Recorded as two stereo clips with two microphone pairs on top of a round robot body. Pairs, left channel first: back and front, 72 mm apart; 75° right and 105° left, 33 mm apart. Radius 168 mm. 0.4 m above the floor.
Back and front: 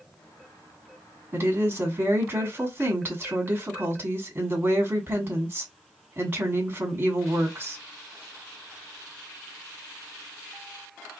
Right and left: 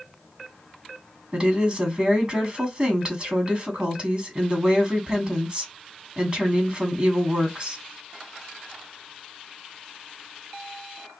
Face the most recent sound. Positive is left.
turn(degrees=60)